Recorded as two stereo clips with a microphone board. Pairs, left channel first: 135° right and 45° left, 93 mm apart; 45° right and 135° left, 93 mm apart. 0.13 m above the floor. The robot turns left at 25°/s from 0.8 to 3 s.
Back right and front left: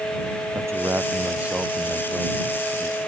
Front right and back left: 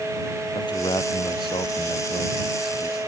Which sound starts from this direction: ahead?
A man speaking, at 0.6 s.